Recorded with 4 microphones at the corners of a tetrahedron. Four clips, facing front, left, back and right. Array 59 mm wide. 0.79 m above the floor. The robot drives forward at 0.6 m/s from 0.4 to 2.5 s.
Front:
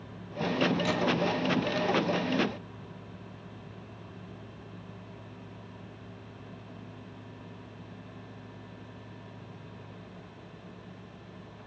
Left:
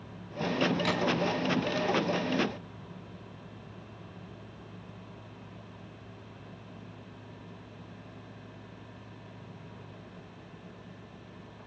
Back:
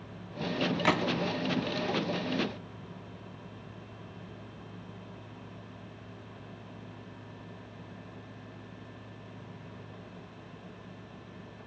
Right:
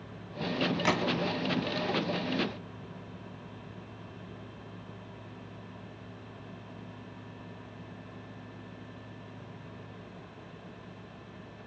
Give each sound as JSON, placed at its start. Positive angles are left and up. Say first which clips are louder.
{"t": 0.8, "sound": "a gunshot", "louder": "right 1 dB, back 1 dB", "azimuth_deg": -155, "distance_m": 0.9}